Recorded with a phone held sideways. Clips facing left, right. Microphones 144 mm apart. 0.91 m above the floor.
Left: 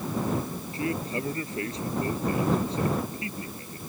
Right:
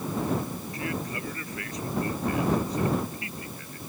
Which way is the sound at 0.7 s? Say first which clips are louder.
Left 5 dB; 30° left (ahead or behind).